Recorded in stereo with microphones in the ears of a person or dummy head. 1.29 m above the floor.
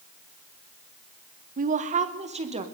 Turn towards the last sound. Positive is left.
turn(degrees=-30)  # may be behind; listen again after turning